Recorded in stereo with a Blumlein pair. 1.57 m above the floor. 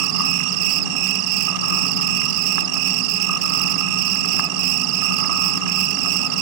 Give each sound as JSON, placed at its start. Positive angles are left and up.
{"t": 0.0, "sound": "an insect", "azimuth_deg": -45}